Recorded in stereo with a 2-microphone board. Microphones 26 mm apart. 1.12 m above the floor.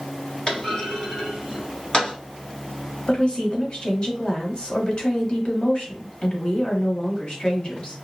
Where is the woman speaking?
35° left (ahead or behind), 0.9 m.